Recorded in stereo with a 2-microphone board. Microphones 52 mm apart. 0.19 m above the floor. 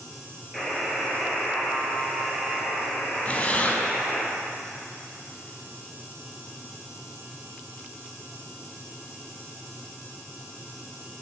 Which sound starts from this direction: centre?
A buzzer, at 0.5 s.